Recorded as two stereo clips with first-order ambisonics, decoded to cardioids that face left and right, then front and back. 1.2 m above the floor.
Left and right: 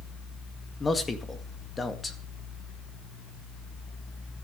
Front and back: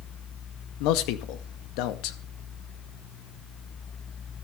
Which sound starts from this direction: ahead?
A man speaking, at 0.8 s.